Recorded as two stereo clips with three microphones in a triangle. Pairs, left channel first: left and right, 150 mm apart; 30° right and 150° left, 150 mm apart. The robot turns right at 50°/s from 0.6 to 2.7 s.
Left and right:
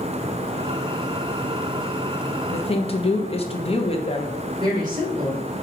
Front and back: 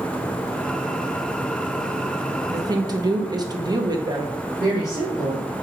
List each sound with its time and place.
2.5 s a woman speaking: 95° left, 0.6 m; by 4.4 s 105° left, 0.6 m
4.6 s a woman speaking: 150° right, 2.5 m